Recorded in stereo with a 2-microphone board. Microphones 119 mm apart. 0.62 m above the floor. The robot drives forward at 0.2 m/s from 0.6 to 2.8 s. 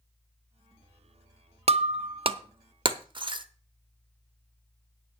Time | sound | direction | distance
1.7 | breaking glass | 55° right (ahead or behind) | 0.5 m